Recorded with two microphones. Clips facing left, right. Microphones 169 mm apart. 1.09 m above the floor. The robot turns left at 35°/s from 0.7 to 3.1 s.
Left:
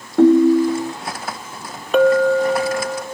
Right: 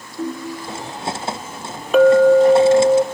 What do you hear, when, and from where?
0.2 s a ringtone: 75° left (ahead or behind), 0.6 m; by 0.9 s 65° left (ahead or behind), 0.6 m
1.9 s a clink: straight ahead, 0.6 m; by 3.0 s 40° right, 0.6 m